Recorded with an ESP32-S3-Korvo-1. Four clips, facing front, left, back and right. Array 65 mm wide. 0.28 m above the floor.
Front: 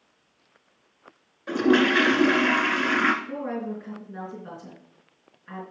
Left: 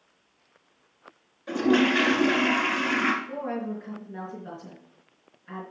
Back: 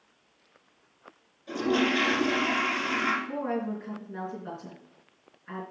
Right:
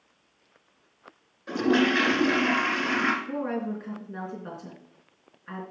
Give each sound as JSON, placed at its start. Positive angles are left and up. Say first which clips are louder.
{"t": 1.5, "sound": "a toilet flushing", "louder": "left 1 dB, front 6 dB", "azimuth_deg": -10, "distance_m": 1.7}
{"t": 3.2, "sound": "a woman speaking", "louder": "right 2 dB, even", "azimuth_deg": -80, "distance_m": 3.5}